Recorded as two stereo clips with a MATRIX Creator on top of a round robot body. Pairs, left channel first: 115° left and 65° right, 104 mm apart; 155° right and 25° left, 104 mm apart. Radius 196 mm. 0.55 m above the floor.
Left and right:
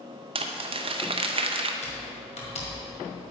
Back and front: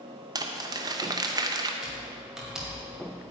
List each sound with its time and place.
0.3 s crumpling: 30° right, 0.6 m
1.8 s typing on a keyboard: 110° left, 2.0 m